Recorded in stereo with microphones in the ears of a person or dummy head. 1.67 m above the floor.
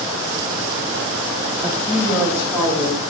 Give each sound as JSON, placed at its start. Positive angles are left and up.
{"t": 1.6, "sound": "a woman speaking", "side_deg": -20, "distance_m": 0.7}